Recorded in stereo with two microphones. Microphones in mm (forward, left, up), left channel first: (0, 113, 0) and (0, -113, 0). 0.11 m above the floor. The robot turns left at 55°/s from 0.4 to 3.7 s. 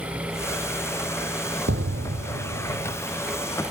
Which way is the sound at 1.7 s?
65° right.